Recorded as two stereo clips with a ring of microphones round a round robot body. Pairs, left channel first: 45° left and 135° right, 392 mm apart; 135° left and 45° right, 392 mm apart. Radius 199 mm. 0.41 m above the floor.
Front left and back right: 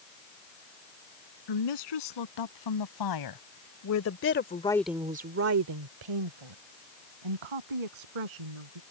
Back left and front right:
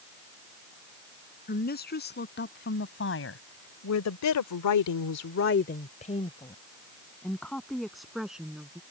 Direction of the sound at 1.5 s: 70° left.